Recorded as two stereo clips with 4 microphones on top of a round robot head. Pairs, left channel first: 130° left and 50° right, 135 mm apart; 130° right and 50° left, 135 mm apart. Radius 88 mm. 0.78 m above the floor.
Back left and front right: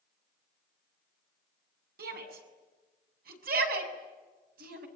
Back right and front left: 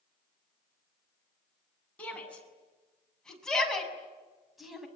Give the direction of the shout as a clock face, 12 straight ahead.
2 o'clock.